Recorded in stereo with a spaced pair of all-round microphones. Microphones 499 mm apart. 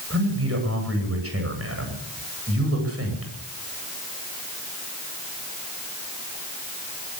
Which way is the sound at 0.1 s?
25° right (ahead or behind).